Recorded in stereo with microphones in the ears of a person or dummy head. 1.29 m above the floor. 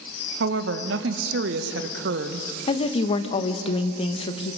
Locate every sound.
0.4 s a woman speaking: 65° right (ahead or behind), 1.3 m
2.7 s a woman speaking: 35° left (ahead or behind), 1.2 m